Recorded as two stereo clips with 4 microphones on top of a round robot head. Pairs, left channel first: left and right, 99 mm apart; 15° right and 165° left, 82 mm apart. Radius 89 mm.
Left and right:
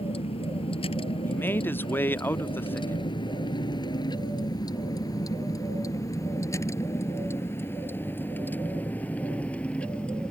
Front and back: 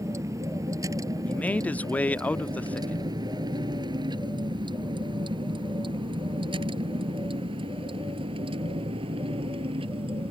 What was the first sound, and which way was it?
A vehicle, 115° left.